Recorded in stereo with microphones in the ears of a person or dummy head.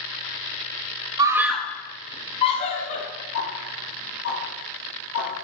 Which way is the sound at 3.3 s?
65° left (ahead or behind).